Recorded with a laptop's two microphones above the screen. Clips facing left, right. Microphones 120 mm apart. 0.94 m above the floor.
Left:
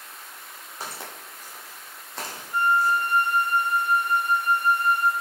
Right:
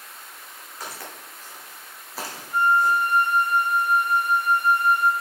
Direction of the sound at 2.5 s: 15° right (ahead or behind).